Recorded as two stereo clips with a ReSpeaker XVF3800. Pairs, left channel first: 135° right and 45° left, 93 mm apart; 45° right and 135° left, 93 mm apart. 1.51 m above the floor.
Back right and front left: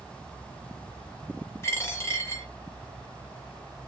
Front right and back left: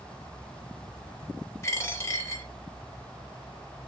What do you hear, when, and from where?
1.6 s a dropped coin: 90° right, 1.2 m